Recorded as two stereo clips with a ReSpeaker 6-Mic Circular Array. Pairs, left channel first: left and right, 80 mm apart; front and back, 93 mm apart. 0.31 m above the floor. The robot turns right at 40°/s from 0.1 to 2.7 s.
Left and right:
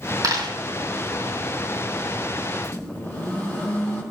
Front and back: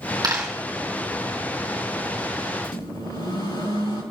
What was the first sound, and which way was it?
A dropped coin, 135° right.